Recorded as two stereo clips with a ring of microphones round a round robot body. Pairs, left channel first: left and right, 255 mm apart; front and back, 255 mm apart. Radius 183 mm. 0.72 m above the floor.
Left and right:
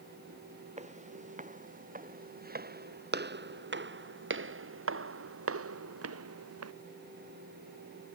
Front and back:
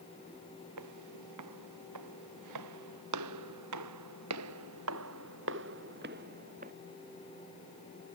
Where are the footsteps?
155° right; by 6.7 s 110° right.